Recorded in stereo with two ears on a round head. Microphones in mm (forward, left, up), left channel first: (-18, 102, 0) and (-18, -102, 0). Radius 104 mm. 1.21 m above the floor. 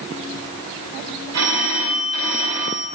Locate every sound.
1.3 s a phone ringing: 70° right (ahead or behind), 5 m